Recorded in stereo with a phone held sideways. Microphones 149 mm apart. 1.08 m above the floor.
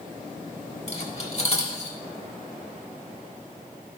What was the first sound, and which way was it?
Cutlery clinking, 45° left (ahead or behind).